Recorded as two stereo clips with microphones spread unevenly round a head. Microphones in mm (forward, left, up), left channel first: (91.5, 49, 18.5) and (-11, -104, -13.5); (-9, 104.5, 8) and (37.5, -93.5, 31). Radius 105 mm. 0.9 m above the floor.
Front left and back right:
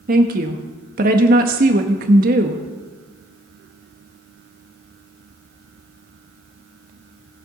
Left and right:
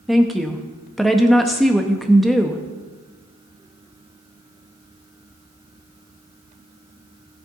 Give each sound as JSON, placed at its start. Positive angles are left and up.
{"t": 0.1, "sound": "a woman speaking", "azimuth_deg": -170, "distance_m": 0.7}